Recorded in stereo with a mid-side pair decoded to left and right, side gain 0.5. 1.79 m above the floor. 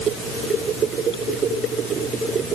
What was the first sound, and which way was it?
Only background noise.